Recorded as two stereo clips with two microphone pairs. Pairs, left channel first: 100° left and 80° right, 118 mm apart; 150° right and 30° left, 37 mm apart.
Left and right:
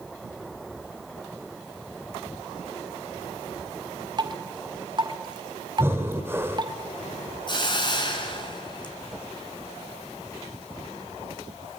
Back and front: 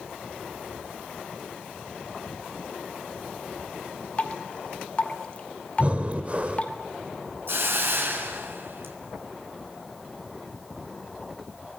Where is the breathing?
15° right, 1.9 m.